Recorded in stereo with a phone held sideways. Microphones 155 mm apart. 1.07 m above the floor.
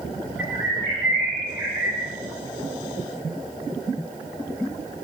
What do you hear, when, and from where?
0.4 s a bird: 75° left (ahead or behind), 4 m